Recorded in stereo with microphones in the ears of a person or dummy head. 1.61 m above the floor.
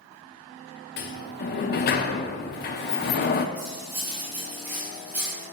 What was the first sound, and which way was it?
A sliding door, 50° left (ahead or behind).